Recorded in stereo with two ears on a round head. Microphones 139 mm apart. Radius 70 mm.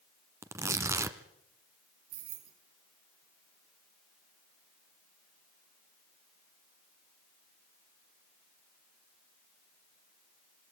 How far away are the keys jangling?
About 6.5 m.